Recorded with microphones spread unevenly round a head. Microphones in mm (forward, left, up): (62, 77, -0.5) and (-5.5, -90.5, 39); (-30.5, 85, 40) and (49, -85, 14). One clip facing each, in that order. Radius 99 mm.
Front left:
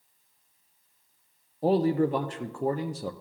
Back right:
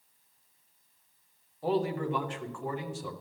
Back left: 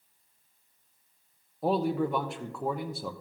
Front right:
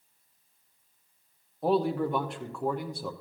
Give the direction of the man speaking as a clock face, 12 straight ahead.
11 o'clock.